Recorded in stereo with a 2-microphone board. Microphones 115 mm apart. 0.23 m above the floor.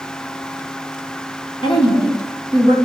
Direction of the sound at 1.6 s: 55° left (ahead or behind).